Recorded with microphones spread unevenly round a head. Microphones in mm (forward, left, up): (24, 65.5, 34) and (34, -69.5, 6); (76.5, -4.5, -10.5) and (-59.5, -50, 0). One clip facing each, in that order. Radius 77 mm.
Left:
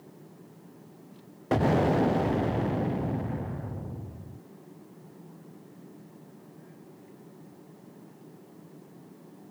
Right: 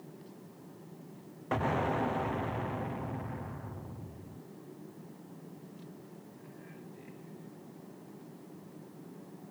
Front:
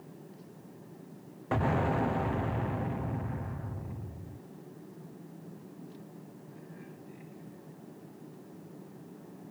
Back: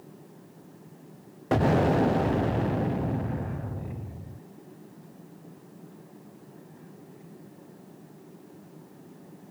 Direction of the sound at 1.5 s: 150° left.